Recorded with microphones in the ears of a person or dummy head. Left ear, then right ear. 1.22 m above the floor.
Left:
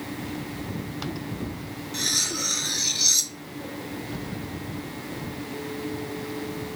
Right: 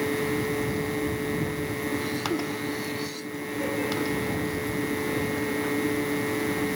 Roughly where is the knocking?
I don't hear knocking.